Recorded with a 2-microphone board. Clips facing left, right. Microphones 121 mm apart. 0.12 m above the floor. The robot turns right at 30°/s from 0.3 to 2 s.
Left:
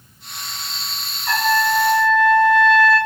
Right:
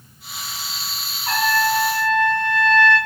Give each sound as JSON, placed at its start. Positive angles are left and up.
{"t": 1.3, "sound": "a trumpet", "side_deg": -45, "distance_m": 0.8}